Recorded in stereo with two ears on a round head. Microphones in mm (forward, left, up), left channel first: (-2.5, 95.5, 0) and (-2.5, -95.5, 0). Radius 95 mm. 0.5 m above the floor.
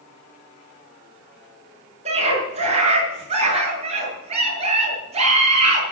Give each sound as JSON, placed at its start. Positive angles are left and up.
{"t": 2.0, "sound": "a scream", "side_deg": -30, "distance_m": 7.5}